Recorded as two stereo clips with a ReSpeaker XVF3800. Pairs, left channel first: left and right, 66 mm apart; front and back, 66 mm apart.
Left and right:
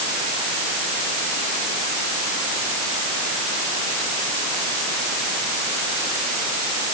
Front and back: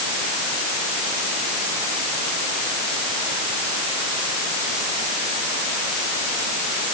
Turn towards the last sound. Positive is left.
No sound to turn to.